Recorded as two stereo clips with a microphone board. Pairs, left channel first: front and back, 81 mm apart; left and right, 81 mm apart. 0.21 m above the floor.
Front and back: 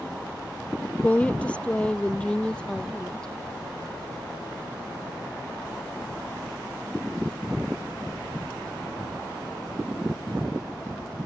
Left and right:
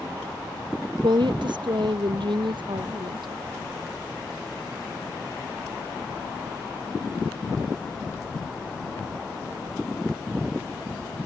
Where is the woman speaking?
70° right; by 3.3 s 80° right.